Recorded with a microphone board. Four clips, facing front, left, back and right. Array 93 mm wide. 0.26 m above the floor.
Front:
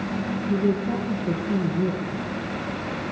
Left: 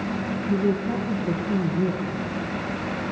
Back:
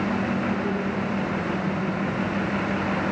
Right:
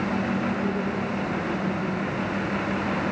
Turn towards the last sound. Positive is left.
turn(degrees=35)